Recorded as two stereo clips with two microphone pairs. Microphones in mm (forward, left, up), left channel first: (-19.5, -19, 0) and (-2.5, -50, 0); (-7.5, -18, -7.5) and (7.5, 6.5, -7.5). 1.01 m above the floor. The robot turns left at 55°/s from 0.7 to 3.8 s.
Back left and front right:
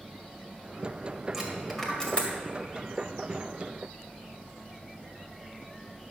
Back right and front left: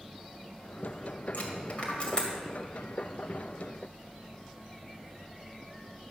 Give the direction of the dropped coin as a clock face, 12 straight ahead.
5 o'clock.